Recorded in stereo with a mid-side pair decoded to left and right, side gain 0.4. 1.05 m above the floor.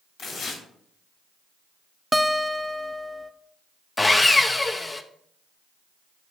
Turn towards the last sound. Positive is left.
turn(degrees=25)